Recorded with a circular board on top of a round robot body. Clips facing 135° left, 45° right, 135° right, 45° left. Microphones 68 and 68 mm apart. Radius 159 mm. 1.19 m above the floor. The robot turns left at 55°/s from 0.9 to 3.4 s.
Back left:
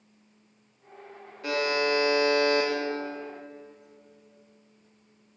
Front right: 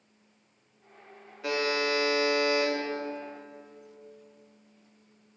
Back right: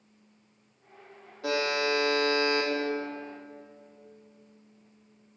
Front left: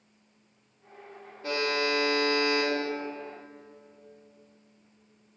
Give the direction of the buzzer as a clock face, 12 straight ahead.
4 o'clock.